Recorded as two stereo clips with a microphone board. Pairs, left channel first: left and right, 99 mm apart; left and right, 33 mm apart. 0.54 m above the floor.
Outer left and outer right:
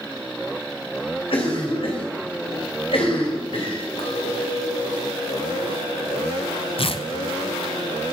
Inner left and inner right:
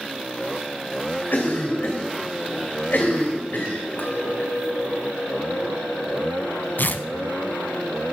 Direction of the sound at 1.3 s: 70° left (ahead or behind).